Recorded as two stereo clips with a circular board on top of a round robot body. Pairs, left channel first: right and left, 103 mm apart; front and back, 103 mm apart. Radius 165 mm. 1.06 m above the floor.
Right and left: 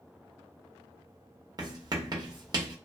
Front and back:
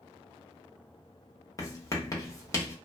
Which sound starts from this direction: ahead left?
Writing, at 1.6 s.